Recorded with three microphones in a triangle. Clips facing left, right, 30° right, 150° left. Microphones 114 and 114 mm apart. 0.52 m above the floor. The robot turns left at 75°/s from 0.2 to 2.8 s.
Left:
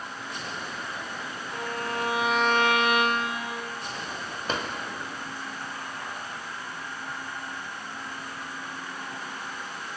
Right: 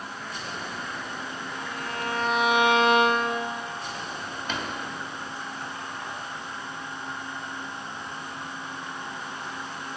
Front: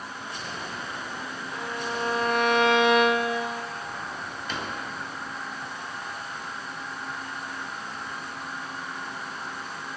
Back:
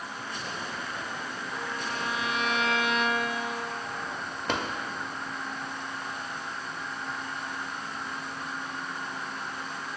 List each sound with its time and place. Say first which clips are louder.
1.5 s a violin: left 5 dB, front 4 dB; 65° left, 0.8 m; by 3.6 s 30° right, 0.8 m
4.5 s a drawer: left 2 dB, back 4 dB; 140° left, 1.1 m